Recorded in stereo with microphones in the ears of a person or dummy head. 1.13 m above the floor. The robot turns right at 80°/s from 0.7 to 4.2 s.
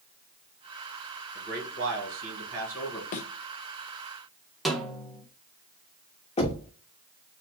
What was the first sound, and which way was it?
A man speaking, 125° right.